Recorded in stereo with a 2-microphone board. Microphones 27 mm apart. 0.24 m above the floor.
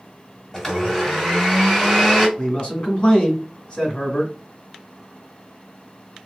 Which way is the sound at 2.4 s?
40° left (ahead or behind).